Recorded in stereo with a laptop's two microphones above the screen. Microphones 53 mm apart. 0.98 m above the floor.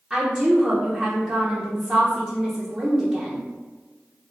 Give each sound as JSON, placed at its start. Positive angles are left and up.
{"t": 0.1, "sound": "a woman speaking", "side_deg": -20, "distance_m": 0.8}